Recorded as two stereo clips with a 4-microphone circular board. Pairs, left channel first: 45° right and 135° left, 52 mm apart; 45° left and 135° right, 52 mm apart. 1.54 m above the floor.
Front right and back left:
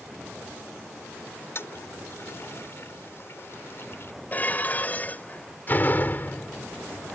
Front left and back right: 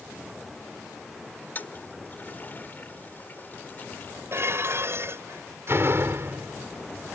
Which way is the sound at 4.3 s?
100° right.